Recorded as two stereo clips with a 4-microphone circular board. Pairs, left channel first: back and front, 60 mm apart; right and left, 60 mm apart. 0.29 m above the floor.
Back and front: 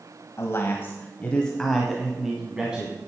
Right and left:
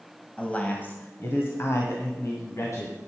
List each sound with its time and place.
0.4 s a man speaking: 155° right, 1.5 m; by 3.0 s 65° right, 2 m